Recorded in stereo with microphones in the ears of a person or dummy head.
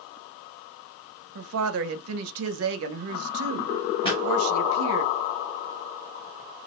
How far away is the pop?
About 0.9 m.